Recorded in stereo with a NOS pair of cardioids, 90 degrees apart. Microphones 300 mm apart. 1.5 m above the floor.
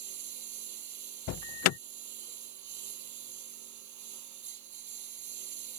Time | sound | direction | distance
0.0 | a lawn mower | 70° right | ?
1.3 | an alarm | 60° left | ?